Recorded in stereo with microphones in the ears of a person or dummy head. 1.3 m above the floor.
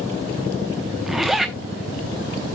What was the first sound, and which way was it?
A zipper, centre (ahead or behind).